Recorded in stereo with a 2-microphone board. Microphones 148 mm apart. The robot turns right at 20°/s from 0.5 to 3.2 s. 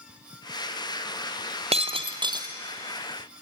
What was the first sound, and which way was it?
Breaking glass, 40° right (ahead or behind).